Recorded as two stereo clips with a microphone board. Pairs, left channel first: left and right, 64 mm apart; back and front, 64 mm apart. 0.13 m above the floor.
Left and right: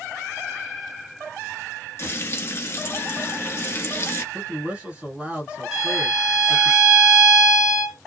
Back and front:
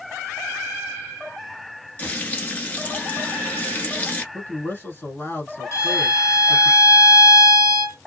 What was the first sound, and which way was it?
Frying, 120° left.